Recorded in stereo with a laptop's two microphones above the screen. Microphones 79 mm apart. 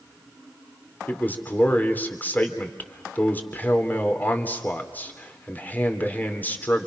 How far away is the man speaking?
About 3.5 m.